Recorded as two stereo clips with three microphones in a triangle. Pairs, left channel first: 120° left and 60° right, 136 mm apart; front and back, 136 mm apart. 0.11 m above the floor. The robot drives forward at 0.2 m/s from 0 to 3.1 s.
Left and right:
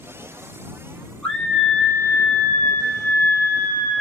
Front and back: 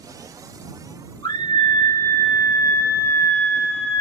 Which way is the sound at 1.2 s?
40° left.